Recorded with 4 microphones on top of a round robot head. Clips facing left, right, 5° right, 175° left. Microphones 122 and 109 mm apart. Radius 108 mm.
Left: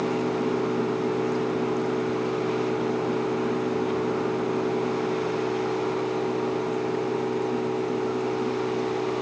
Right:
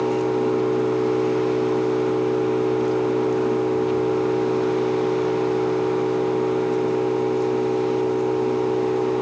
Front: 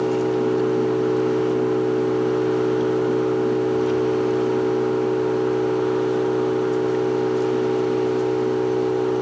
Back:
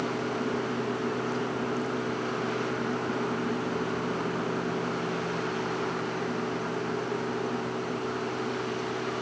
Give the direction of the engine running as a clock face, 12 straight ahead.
1 o'clock.